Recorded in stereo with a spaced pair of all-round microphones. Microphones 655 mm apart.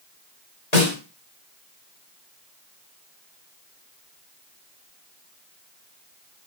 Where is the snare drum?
65° left (ahead or behind), 4 m.